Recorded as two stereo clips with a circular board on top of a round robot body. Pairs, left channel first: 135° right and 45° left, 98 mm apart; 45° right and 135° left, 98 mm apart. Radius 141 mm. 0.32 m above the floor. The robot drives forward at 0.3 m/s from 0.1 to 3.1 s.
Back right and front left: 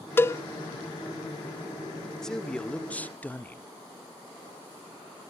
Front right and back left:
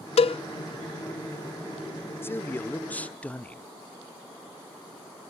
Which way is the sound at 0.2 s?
65° right.